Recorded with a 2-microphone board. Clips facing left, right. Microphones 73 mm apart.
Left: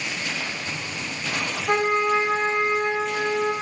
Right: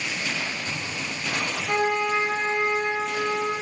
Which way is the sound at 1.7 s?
40° left (ahead or behind).